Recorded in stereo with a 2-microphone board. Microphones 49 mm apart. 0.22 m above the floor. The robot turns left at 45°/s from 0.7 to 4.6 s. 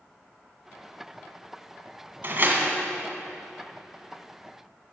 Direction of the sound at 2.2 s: 45° right (ahead or behind).